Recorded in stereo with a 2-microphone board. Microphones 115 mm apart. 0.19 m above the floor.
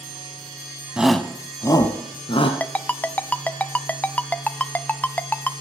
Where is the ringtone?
15° left (ahead or behind), 0.5 m.